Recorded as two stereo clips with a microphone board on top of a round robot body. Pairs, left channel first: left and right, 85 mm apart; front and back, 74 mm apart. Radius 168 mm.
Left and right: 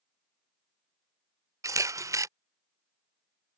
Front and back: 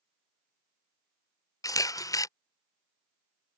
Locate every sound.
1.6 s a camera shutter: 40° right